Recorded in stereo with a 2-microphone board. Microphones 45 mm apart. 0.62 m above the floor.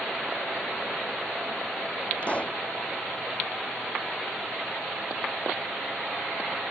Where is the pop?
30° left (ahead or behind).